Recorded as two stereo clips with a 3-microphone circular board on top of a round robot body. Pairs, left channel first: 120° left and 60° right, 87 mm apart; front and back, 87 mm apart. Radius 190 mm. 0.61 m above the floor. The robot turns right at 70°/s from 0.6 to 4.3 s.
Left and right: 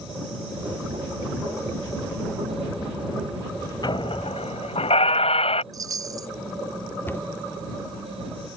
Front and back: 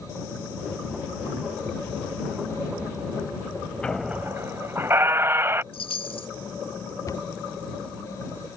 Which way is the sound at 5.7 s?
10° right.